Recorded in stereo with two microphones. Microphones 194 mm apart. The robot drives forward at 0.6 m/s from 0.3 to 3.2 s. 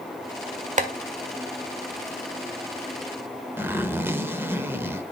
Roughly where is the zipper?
Centre.